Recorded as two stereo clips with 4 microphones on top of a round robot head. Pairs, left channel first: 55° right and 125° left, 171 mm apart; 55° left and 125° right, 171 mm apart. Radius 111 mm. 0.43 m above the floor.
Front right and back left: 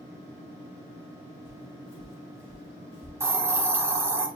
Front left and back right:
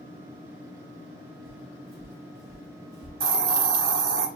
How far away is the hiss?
About 0.7 m.